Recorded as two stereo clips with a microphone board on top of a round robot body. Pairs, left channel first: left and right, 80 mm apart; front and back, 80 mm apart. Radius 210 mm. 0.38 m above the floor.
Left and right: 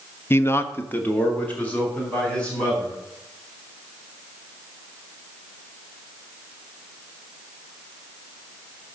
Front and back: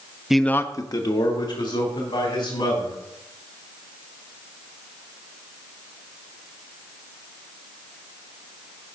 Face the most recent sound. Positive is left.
turn(degrees=15)